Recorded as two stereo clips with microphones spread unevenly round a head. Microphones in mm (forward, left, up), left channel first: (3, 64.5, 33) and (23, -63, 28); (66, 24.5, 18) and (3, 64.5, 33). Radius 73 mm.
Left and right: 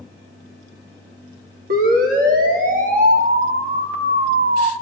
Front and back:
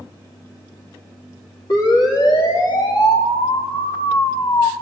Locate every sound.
1.7 s a siren: 85° right, 4.5 m; by 4.7 s 75° right, 1.8 m